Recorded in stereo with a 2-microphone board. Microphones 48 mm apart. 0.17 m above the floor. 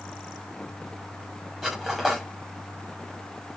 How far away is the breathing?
I don't hear breathing.